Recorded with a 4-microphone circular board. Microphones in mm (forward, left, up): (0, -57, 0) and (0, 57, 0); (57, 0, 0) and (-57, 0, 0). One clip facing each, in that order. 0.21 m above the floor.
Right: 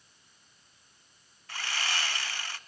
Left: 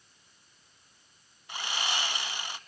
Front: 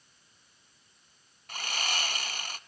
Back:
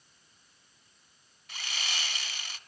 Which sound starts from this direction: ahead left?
Sawing, at 1.5 s.